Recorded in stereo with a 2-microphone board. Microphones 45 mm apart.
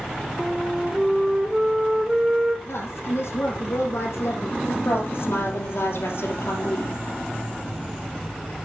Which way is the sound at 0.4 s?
15° right (ahead or behind).